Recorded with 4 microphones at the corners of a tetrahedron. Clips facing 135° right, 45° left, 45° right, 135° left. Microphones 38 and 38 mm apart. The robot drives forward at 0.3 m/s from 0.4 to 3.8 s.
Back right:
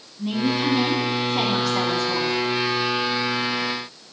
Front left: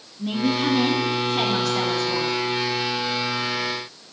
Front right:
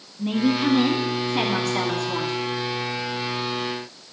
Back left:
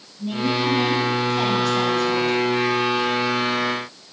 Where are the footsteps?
No footsteps in this recording.